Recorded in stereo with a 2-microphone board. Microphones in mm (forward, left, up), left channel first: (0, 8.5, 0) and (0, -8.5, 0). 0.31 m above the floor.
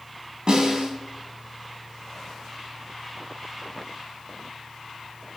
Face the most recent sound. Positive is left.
turn(degrees=-60)  # may be behind; listen again after turning